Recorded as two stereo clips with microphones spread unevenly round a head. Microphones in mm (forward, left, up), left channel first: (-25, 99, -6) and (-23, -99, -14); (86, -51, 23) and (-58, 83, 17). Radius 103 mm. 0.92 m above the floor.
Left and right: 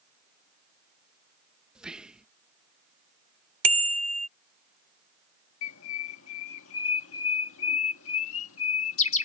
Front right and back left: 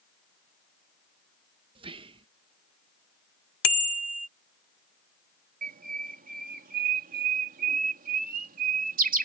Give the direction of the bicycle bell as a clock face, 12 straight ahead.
1 o'clock.